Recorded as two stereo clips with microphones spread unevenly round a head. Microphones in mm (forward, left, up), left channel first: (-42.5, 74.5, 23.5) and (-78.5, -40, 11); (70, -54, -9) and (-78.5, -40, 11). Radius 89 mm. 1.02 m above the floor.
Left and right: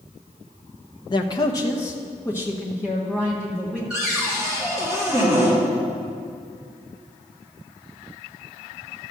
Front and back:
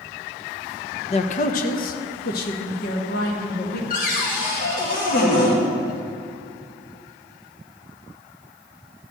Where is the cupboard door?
20° right, 1.8 m.